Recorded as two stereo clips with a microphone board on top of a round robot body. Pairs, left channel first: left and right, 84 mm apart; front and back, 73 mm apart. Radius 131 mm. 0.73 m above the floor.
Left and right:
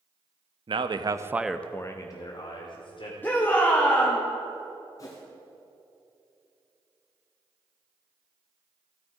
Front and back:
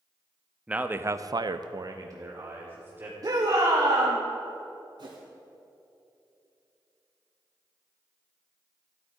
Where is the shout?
155° left, 1.6 m.